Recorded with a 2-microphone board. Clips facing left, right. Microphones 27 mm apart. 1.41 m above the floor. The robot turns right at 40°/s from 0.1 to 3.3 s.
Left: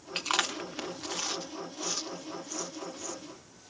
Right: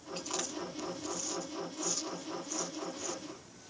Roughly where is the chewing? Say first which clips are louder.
Left 9 dB; left.